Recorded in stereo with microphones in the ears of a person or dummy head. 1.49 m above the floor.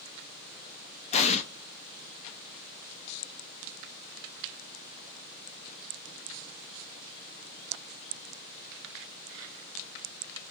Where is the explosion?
35° left (ahead or behind), 0.5 m.